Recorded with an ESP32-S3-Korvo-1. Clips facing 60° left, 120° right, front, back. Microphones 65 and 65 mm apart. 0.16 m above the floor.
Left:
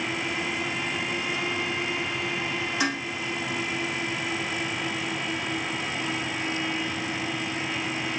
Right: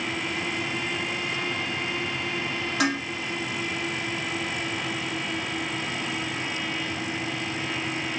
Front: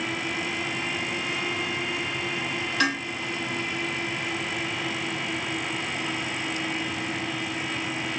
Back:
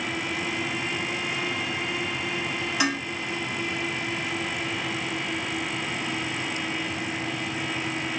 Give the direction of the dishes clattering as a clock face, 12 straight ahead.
3 o'clock.